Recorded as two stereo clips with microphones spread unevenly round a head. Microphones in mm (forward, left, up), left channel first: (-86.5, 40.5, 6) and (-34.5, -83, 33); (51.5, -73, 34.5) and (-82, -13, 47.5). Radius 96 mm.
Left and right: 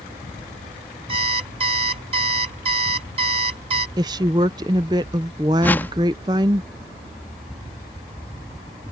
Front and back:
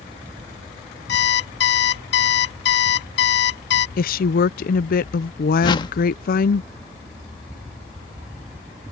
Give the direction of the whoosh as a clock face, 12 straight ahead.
11 o'clock.